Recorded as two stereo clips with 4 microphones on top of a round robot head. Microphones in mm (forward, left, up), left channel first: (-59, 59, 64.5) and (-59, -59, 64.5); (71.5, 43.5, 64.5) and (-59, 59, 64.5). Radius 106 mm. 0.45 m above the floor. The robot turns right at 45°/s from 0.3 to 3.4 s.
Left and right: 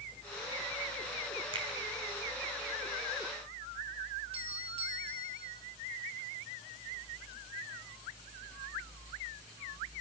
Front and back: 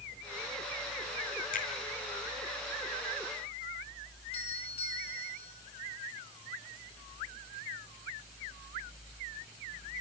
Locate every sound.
1.5 s a finger snap: 35° right, 5 m; by 1.7 s 30° right, 5 m
4.3 s a doorbell: 50° right, 5.5 m